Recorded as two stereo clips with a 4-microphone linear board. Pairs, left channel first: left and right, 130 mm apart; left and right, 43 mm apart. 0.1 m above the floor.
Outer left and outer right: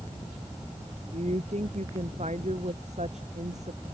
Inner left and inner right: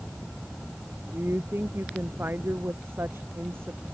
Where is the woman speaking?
60° right (ahead or behind).